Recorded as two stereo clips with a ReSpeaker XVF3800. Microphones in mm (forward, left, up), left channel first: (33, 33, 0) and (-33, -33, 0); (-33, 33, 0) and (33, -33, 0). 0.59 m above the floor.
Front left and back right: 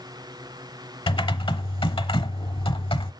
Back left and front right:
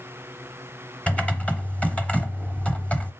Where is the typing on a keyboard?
60° left, 0.9 m.